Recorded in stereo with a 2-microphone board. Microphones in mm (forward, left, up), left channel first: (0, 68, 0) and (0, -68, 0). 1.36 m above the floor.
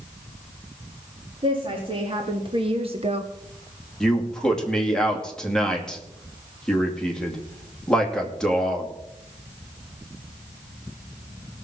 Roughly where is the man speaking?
Centre.